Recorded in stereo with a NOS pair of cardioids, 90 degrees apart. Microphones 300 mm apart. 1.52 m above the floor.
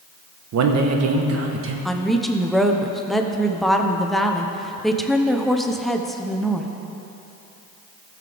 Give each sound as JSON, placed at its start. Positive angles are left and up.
{"t": 0.5, "sound": "a man speaking", "azimuth_deg": -65, "distance_m": 1.1}
{"t": 1.9, "sound": "a woman speaking", "azimuth_deg": 0, "distance_m": 0.8}